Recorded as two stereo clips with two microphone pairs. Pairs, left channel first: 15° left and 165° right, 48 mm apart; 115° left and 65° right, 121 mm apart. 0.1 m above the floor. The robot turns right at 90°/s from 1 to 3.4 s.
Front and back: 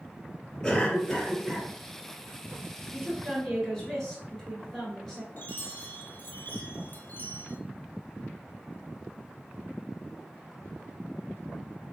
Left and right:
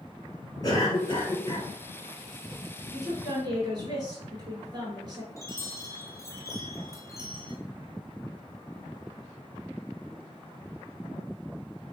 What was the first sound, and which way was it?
A cough, 90° left.